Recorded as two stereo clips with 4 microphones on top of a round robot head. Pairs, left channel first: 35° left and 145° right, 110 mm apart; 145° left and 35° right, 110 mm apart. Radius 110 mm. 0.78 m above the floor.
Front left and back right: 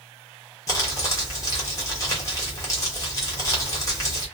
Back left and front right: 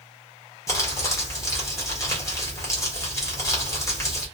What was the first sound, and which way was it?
Crumpling, 90° left.